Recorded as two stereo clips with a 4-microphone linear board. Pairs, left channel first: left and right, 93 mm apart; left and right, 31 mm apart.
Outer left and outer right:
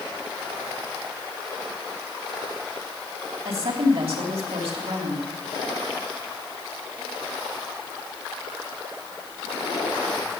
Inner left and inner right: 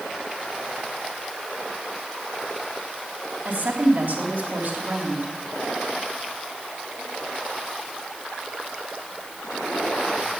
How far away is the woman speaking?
About 3.5 m.